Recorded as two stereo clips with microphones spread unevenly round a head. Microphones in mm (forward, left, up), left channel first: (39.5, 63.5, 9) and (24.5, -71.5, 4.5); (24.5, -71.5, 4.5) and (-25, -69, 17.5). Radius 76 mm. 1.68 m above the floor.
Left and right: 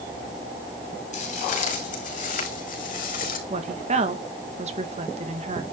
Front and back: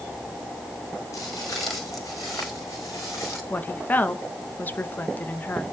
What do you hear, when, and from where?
1.1 s footsteps: 55° left, 5 m; by 3.4 s 70° left, 4.5 m
3.5 s a woman speaking: 55° right, 2 m